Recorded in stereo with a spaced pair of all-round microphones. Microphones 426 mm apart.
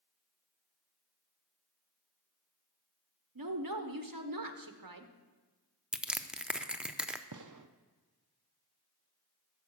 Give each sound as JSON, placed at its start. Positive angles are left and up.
{"t": 3.4, "sound": "a woman speaking", "side_deg": -55, "distance_m": 0.9}
{"t": 5.9, "sound": "crushing", "side_deg": 0, "distance_m": 0.5}
{"t": 7.3, "sound": "a gunshot", "side_deg": -50, "distance_m": 0.5}